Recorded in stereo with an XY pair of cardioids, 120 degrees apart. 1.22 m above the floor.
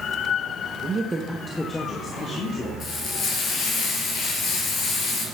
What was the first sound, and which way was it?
A woman speaking, 40° right.